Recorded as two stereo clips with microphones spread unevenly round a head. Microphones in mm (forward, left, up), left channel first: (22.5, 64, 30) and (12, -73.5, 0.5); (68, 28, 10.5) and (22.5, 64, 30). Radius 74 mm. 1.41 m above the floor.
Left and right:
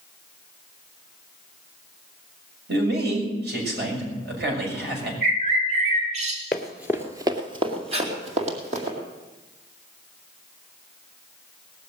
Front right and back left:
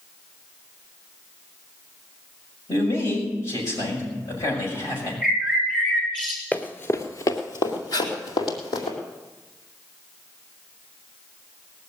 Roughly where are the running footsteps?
Ahead left.